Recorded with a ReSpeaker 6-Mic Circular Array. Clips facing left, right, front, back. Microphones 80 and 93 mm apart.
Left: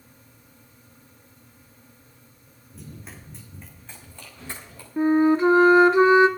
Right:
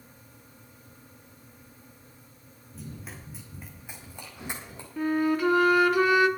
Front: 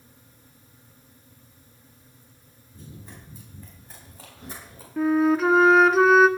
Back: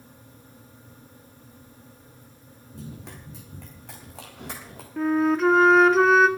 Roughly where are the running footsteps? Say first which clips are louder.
Even, back 4 dB; behind.